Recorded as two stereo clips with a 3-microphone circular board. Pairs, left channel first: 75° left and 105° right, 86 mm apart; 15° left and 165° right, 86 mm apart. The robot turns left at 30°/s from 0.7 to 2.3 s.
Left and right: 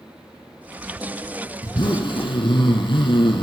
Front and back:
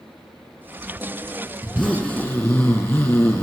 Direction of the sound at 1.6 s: 95° left.